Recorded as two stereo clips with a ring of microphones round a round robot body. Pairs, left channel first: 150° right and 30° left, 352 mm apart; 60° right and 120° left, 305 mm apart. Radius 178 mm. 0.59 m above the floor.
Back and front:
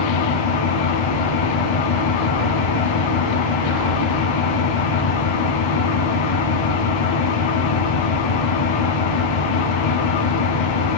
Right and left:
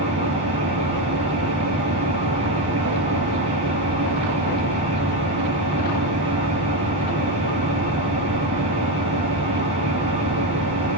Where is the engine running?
165° right, 1.8 m.